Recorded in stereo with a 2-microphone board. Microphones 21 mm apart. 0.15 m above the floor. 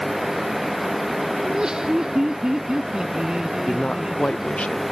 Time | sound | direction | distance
1.4 | laughter | 40° right (ahead or behind) | ?
3.7 | a man speaking | 60° left (ahead or behind) | ?